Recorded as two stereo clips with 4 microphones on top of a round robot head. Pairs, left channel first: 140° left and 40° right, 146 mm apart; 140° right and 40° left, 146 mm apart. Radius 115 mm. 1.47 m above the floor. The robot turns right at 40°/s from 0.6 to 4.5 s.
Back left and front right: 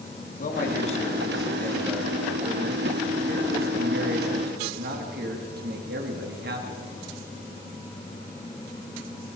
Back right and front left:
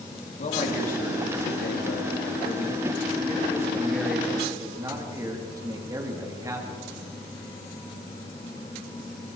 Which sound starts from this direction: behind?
A man speaking, at 0.4 s.